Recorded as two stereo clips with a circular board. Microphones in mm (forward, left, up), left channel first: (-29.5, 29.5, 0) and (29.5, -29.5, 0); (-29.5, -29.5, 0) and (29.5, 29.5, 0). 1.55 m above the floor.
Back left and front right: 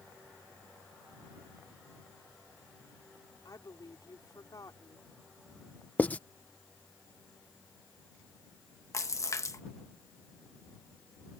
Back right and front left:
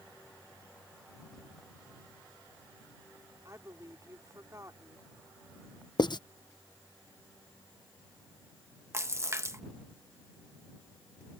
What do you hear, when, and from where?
3.5 s a woman speaking: 95° left
6.0 s writing: 155° right
8.9 s a splash: 95° left